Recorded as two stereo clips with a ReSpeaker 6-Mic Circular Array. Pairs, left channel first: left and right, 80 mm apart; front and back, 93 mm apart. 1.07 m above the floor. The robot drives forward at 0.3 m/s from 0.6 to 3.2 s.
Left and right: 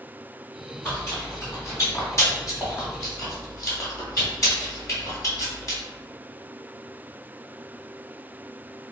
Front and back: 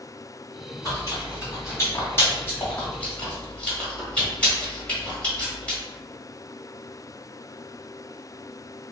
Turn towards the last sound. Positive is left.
turn(degrees=75)